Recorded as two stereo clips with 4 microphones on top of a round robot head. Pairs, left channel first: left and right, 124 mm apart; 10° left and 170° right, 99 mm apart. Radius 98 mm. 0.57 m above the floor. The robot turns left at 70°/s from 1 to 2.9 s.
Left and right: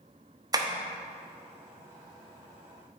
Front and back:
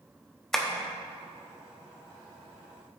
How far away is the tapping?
About 1.1 m.